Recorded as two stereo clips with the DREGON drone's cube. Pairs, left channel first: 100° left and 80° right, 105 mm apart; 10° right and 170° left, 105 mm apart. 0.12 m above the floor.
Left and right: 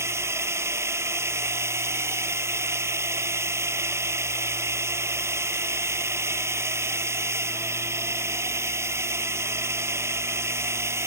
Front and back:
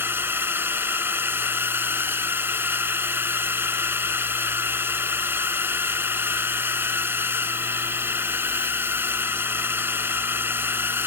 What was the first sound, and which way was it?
A drone, 130° right.